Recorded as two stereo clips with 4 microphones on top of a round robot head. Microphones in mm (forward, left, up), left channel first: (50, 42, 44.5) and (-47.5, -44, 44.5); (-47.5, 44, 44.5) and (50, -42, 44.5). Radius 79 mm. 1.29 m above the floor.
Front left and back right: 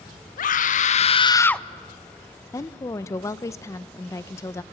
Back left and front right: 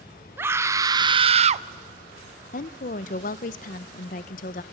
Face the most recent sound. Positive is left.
turn(degrees=110)